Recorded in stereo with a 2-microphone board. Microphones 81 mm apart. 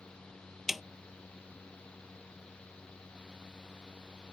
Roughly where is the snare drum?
Centre.